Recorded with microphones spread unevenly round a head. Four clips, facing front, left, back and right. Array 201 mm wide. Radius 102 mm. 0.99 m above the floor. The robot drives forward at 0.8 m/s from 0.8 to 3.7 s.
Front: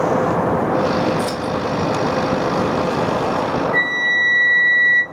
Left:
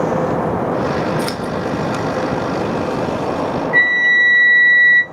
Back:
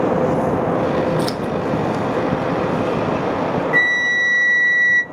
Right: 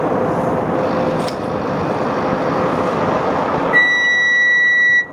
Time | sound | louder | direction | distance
1.2 | scissors | right 1 dB, even | 150° left | 0.9 m
3.7 | a flute | even, back 1 dB | 170° right | 0.5 m